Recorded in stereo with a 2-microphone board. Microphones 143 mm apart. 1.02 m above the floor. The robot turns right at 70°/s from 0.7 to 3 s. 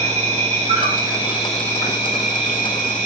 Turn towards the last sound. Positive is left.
turn(degrees=105)